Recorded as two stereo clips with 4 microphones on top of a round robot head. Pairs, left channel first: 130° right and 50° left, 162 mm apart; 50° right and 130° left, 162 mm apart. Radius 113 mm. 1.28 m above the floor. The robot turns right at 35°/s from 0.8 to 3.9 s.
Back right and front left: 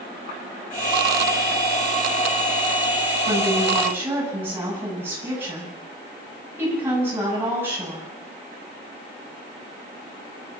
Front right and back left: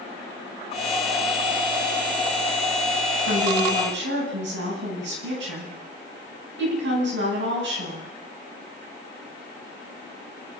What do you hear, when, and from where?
3.3 s a woman speaking: 105° left, 10 m; by 8.1 s 130° left, 10 m